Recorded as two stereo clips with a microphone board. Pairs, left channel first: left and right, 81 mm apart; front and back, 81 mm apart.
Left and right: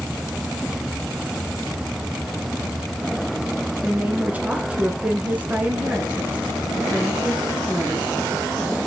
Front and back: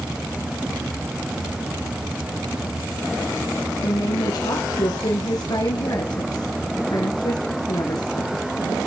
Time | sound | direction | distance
3.8 | a woman speaking | 20° right | 2 m